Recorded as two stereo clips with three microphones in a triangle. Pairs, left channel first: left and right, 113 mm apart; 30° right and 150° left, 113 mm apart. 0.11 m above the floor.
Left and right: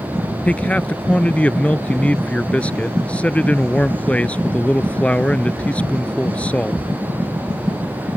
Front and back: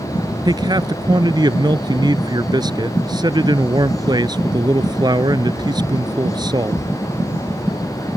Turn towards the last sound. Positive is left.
turn(degrees=160)